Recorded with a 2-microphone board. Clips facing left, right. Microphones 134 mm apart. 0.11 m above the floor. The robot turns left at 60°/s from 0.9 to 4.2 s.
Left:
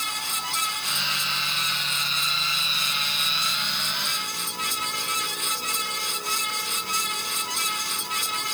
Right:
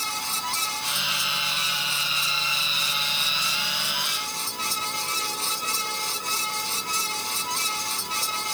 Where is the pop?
No pop in this recording.